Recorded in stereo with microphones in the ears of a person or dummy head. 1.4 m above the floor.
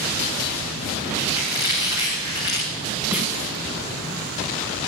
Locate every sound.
1.2 s a squeak: 15° right (ahead or behind), 6.5 m
3.1 s a snare drum: 10° right (ahead or behind), 3.5 m